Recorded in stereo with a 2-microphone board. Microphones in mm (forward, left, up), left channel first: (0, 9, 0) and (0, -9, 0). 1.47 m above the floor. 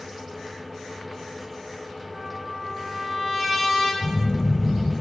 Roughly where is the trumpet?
Left.